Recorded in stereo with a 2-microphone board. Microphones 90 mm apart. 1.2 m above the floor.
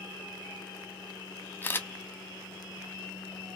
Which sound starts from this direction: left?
A camera shutter, at 1.6 s.